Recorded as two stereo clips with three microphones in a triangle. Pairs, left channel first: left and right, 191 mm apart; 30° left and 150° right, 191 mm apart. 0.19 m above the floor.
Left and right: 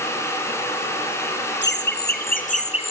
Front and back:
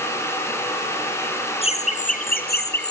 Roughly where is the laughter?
Left.